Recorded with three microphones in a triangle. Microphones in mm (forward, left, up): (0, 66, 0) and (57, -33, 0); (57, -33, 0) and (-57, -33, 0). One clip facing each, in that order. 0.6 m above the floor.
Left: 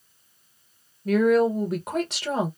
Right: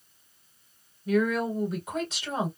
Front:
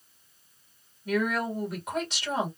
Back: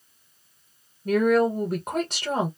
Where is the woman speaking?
140° left, 1.5 m.